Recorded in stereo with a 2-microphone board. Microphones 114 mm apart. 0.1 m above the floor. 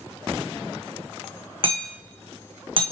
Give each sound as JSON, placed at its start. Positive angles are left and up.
{"t": 1.6, "sound": "hammering", "side_deg": -50, "distance_m": 1.5}